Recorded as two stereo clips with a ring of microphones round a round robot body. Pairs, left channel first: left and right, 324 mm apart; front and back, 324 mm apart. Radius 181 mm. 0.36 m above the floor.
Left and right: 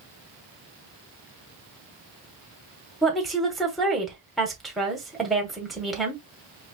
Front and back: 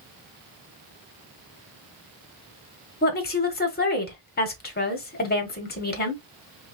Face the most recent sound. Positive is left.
turn(degrees=0)